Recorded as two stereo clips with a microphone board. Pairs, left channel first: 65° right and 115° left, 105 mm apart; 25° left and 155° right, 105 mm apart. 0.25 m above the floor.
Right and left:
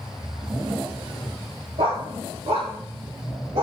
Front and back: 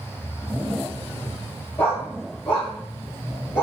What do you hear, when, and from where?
1.8 s a dog barking: 105° left, 8.5 m; by 3.6 s 95° left, 8.5 m